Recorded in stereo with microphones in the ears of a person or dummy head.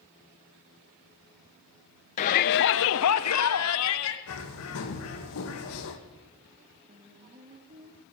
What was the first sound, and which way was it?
A shout, 40° left (ahead or behind).